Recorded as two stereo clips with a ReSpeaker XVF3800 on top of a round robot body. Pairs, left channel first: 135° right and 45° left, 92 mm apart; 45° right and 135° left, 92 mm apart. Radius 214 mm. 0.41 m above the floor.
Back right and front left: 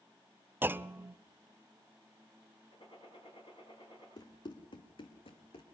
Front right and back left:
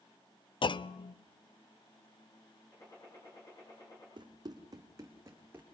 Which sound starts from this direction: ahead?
A clunk, at 0.6 s.